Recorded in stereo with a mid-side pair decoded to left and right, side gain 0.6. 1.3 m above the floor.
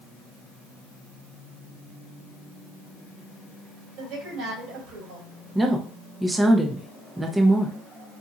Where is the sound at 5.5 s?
15° right, 0.6 m.